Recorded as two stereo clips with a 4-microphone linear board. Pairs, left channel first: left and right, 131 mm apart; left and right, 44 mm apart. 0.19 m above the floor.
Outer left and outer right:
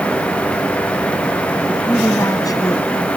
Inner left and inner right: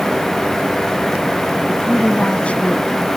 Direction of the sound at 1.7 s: 15° left (ahead or behind).